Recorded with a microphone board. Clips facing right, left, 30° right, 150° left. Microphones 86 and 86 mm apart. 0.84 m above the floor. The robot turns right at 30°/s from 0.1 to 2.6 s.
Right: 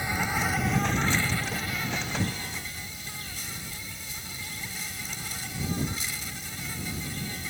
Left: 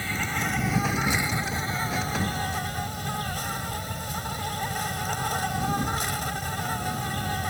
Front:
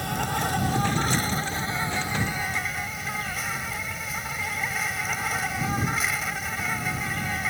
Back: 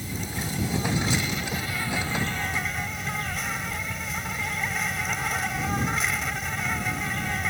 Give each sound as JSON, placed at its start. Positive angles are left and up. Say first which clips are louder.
{"t": 0.0, "sound": "an insect", "louder": "right 1 dB, front 6 dB", "azimuth_deg": -15}